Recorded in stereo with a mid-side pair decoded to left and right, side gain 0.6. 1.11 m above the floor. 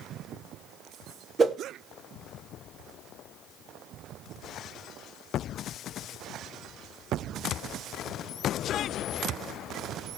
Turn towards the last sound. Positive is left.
turn(degrees=-35)